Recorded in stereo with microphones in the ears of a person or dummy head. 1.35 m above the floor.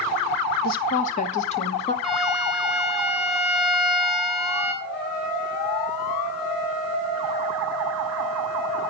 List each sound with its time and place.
0.6 s a woman speaking: 50° left (ahead or behind), 0.8 m; by 1.9 s 30° left (ahead or behind), 1.7 m
2.0 s a violin: centre (ahead or behind), 1.9 m
4.8 s a trumpet: 50° left (ahead or behind), 4.5 m